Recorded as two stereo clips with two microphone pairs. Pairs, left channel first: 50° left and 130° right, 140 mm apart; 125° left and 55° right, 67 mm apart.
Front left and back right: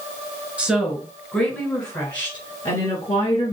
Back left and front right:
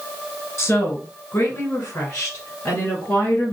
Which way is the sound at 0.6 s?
150° left.